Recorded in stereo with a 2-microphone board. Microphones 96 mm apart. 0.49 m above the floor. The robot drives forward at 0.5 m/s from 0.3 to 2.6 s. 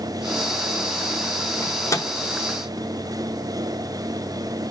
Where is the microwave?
35° left (ahead or behind), 0.7 m; by 2.1 s 30° left (ahead or behind), 0.7 m.